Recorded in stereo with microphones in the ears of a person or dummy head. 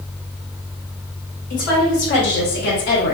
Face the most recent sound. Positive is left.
turn(degrees=45)  # may be behind; listen again after turning